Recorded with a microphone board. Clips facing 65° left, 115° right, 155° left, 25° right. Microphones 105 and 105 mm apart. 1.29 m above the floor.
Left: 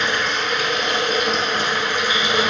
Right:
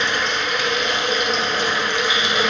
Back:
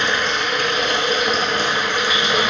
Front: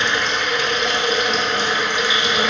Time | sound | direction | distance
0.0 | running water | 115° left | 1.1 m